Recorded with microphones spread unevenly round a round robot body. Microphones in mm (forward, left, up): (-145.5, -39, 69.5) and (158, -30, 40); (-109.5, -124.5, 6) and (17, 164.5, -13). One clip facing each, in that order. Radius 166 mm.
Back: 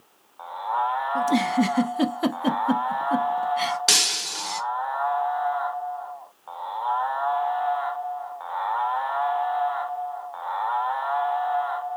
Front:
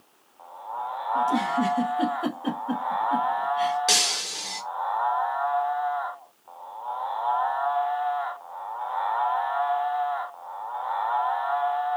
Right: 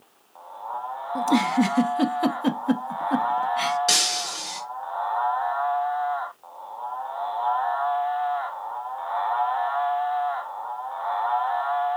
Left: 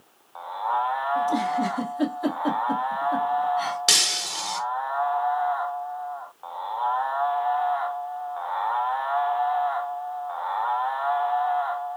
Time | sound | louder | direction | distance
1.1 | a giggle | back 4 dB, right 6 dB | 125° right | 0.6 m
3.9 | breaking glass | front 1 dB, right 3 dB | 125° left | 0.8 m